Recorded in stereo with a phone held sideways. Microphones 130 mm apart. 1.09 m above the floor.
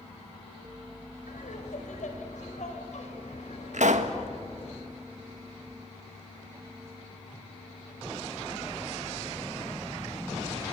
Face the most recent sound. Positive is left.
turn(degrees=-70)  # may be behind; listen again after turning